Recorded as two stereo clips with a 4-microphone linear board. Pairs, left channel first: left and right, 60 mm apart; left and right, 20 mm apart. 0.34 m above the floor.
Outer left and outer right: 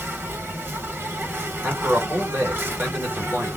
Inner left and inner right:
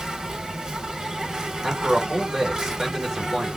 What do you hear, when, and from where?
0.0 s an insect: 35° right (ahead or behind), 0.8 m
1.6 s a man speaking: 30° right (ahead or behind), 1.6 m